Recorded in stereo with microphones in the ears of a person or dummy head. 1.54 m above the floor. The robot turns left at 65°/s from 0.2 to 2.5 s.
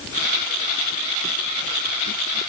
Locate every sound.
Only background noise.